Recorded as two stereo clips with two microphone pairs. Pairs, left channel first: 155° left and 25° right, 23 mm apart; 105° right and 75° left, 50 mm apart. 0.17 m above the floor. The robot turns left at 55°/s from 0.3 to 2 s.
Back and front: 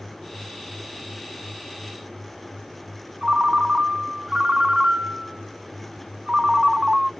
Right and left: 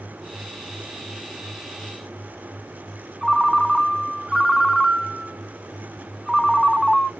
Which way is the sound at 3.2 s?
5° right.